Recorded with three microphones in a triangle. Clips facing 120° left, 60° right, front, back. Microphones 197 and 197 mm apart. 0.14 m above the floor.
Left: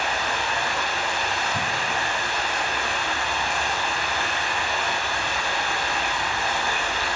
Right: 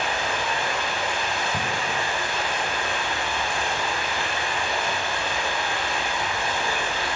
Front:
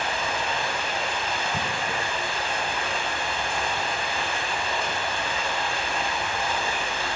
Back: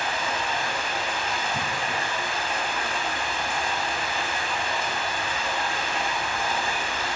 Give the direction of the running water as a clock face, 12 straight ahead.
2 o'clock.